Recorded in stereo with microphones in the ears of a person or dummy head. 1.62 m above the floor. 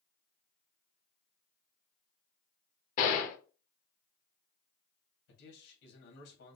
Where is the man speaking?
80° left, 2 m.